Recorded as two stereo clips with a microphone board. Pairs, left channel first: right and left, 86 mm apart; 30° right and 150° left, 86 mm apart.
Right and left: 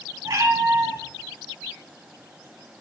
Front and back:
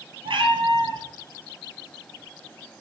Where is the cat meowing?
140° left, 2 m.